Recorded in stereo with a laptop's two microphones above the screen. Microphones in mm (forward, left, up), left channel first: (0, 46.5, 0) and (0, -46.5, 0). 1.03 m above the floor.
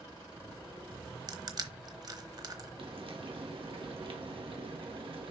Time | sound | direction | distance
1.3 | crushing | 40° right (ahead or behind) | 1.0 m
2.8 | frying | 60° right (ahead or behind) | 1.7 m